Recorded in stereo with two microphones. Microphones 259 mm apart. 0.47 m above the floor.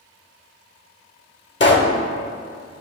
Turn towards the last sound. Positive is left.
turn(degrees=45)  # may be behind; listen again after turning